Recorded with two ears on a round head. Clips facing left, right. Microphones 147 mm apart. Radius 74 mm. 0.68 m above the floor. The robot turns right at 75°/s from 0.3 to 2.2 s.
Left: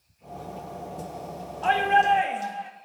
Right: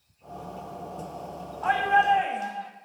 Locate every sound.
1.6 s a shout: 115° left, 0.8 m; by 2.7 s 160° left, 0.8 m